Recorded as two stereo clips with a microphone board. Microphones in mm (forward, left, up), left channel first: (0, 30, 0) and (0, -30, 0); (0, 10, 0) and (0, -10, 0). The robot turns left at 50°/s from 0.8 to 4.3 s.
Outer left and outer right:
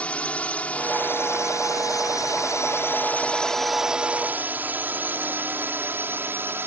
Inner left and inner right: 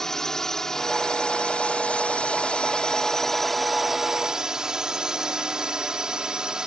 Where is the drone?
20° left (ahead or behind); by 6.7 s 40° right (ahead or behind).